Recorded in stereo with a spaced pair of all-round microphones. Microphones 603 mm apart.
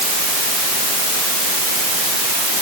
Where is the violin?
I don't hear a violin.